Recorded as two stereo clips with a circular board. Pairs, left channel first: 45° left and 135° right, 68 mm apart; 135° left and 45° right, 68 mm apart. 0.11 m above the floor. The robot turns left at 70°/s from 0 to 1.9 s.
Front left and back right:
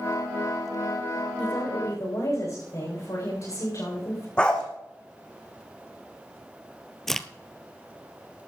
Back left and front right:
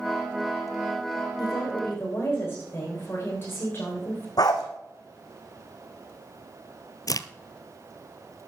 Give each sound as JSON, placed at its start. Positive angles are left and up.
{"t": 1.4, "sound": "a woman speaking", "azimuth_deg": 115, "distance_m": 7.5}
{"t": 4.4, "sound": "a dog barking", "azimuth_deg": 120, "distance_m": 2.5}
{"t": 7.1, "sound": "a crack", "azimuth_deg": 130, "distance_m": 0.6}